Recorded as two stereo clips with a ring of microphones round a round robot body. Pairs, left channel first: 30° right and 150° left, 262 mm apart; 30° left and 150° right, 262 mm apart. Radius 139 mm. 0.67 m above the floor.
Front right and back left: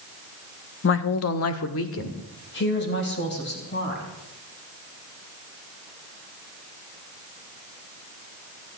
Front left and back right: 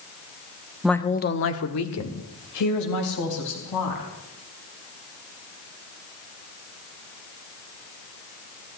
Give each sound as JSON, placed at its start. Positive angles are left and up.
{"t": 0.8, "sound": "a woman speaking", "azimuth_deg": -65, "distance_m": 0.8}